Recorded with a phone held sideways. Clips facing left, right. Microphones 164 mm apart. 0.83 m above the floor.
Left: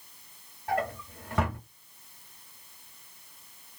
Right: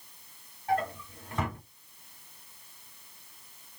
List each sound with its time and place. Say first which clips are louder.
0.7 s a drawer: right 1 dB; 75° left (ahead or behind), 1.0 m